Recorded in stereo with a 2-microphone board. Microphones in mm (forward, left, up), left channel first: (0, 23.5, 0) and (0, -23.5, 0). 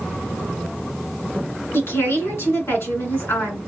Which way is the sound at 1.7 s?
70° left (ahead or behind).